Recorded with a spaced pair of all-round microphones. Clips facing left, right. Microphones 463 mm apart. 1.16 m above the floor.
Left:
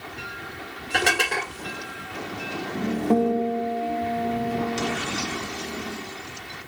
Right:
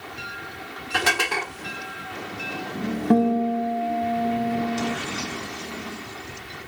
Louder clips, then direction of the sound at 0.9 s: Left 1 dB; 20° right (ahead or behind).